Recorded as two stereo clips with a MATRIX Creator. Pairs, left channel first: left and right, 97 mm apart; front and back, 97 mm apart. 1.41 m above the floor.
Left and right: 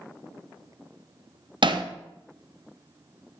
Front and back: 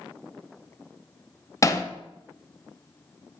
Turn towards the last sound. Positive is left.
turn(degrees=-55)